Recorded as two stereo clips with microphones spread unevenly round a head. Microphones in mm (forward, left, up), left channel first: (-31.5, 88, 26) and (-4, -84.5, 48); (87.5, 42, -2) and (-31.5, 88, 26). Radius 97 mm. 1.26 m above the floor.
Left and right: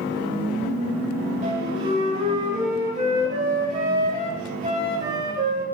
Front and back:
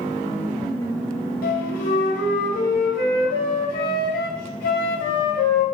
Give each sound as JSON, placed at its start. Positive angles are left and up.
{"t": 1.4, "sound": "a flute", "azimuth_deg": -30, "distance_m": 2.0}